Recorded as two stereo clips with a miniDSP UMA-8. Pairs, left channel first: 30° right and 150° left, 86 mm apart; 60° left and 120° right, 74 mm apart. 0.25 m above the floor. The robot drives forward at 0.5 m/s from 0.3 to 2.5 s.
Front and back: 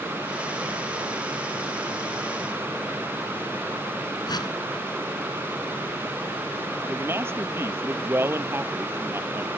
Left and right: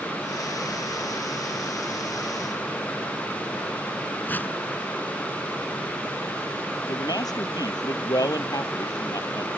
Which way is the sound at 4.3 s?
5° right.